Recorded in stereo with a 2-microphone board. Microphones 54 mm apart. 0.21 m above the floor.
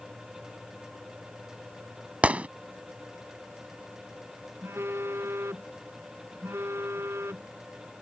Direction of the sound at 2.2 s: 25° right (ahead or behind).